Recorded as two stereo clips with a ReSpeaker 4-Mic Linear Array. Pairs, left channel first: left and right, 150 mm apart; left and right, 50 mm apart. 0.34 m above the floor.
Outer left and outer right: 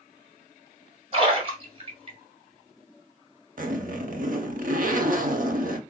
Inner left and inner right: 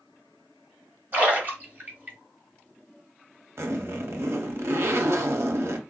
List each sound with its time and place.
1.1 s a splash: 40° right (ahead or behind), 2 m
3.6 s a zipper: 65° right (ahead or behind), 0.6 m